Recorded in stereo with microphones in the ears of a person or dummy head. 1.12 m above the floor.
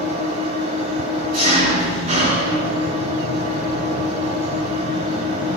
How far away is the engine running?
About 2.5 m.